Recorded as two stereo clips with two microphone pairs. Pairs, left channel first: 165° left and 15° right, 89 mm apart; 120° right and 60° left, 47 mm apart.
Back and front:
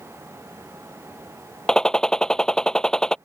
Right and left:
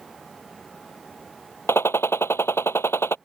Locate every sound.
1.7 s a gunshot: 110° right